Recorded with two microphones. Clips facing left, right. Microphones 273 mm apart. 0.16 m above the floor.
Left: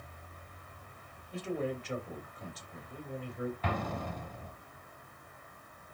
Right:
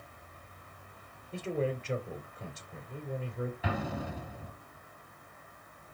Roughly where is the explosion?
Centre.